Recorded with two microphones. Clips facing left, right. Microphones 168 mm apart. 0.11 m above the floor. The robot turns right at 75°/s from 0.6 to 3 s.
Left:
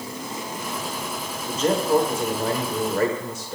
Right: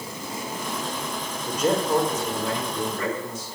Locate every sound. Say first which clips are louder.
1.5 s a man speaking: left 2 dB; 20° right, 6 m; by 3.6 s 95° left, 6 m